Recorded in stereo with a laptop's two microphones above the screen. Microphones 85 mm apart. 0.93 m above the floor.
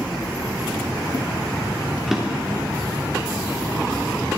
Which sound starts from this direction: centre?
A drawer, at 2.1 s.